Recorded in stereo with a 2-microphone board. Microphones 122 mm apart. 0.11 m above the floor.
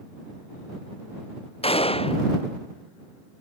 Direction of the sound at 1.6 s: 55° left (ahead or behind).